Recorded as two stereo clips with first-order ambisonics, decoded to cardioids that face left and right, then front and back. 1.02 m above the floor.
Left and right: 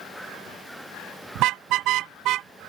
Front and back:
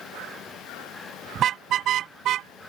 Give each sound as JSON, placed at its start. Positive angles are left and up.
{"t": 1.4, "sound": "a car horn", "azimuth_deg": -125}